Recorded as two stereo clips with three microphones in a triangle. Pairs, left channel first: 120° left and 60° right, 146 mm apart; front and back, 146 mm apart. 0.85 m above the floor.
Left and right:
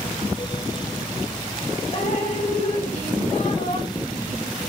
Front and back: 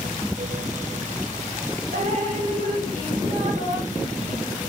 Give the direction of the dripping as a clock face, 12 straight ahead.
7 o'clock.